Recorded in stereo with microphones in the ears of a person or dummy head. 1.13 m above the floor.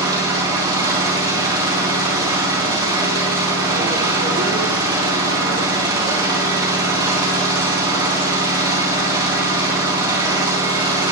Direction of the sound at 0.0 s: 20° right (ahead or behind).